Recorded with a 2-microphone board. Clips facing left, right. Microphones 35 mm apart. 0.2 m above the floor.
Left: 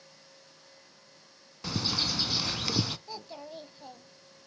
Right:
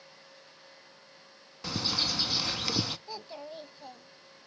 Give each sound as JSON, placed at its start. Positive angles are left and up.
{"t": 1.6, "sound": "a bird", "side_deg": -5, "distance_m": 0.5}
{"t": 3.1, "sound": "a child speaking", "side_deg": 0, "distance_m": 0.7}